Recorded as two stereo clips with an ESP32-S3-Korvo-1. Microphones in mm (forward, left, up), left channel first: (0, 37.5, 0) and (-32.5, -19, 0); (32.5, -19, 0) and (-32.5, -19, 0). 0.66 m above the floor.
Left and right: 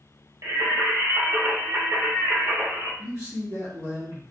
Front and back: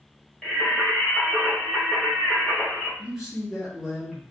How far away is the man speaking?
About 1.8 m.